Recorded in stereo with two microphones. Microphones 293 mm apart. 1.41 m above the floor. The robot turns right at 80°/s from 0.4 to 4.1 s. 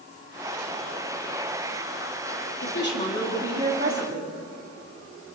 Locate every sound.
2.6 s a woman speaking: 125° left, 3.5 m; by 4.3 s 120° right, 3.5 m